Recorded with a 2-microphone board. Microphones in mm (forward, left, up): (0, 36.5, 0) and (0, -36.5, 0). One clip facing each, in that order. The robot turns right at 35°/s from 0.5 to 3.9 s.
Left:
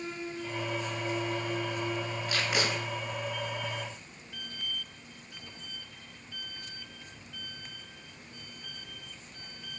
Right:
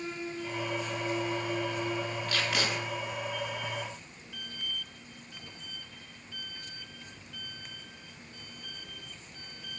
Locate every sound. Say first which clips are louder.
2.3 s tape being pulled: left 2 dB; 15° left (ahead or behind), 0.6 m; by 2.7 s 20° left (ahead or behind), 0.6 m